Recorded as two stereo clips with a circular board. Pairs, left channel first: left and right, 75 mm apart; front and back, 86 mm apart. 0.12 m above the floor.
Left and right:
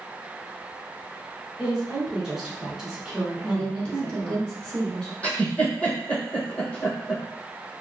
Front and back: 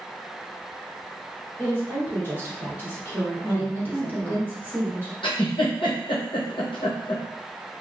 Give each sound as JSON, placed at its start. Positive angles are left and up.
{"t": 1.6, "sound": "a woman speaking", "azimuth_deg": -20, "distance_m": 1.1}
{"t": 3.4, "sound": "a woman speaking", "azimuth_deg": 155, "distance_m": 1.1}
{"t": 5.2, "sound": "a giggle", "azimuth_deg": 15, "distance_m": 1.3}